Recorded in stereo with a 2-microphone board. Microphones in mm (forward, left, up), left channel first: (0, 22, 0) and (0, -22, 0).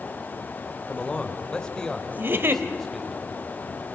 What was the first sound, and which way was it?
A man speaking, 25° left (ahead or behind).